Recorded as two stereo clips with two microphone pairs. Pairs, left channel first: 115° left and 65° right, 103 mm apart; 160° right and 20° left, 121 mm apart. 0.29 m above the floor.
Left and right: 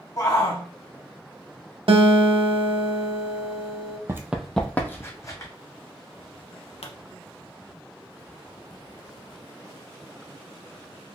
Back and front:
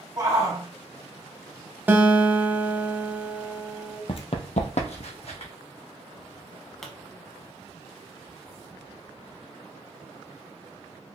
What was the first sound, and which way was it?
A shout, 75° left.